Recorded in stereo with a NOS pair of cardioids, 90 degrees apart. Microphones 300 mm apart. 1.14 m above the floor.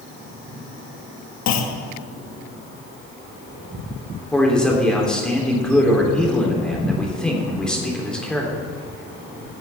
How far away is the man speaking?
About 3.5 m.